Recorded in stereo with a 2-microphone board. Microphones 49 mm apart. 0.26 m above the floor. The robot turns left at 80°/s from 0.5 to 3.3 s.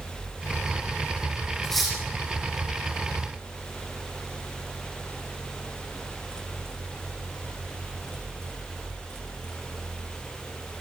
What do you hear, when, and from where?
1.6 s cutlery clinking: 10° left (ahead or behind), 6.5 m; by 2.0 s 15° right (ahead or behind), 6.5 m